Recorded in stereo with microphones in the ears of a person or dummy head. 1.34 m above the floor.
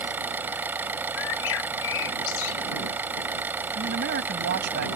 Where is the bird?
70° left (ahead or behind).